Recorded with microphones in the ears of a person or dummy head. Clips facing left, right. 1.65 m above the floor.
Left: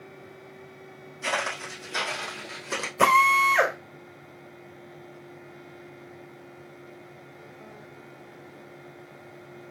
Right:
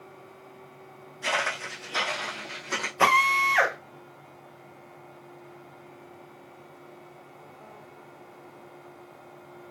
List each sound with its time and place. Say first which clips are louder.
1.2 s footsteps: even; 15° left (ahead or behind), 2.5 m; by 2.9 s 35° left (ahead or behind), 2.5 m
3.0 s a drill: left 3 dB; 40° left (ahead or behind), 2.5 m